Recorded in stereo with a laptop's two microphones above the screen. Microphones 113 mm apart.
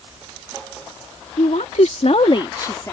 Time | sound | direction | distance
1.4 | a woman speaking | 80° left | ?